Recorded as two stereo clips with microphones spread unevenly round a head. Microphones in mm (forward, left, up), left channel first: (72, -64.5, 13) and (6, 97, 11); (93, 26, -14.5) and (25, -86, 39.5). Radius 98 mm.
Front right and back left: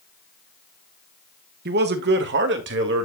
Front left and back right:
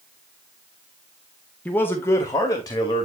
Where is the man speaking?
120° left, 1.3 m; by 3.1 s 115° left, 2.5 m.